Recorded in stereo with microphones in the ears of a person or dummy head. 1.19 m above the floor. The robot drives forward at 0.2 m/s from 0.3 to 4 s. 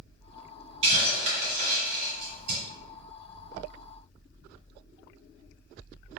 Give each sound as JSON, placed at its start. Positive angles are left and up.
{"t": 0.8, "sound": "a hiss", "side_deg": -30, "distance_m": 1.8}